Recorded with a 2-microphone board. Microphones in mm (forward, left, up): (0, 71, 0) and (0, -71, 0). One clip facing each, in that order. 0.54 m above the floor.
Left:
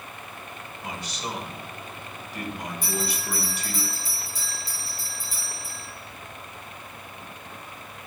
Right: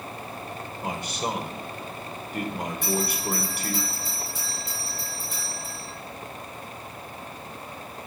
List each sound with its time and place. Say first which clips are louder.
0.8 s a man speaking: right 5 dB; 55° right (ahead or behind), 1.7 m
2.8 s a bell: right 4 dB; 70° right (ahead or behind), 4.5 m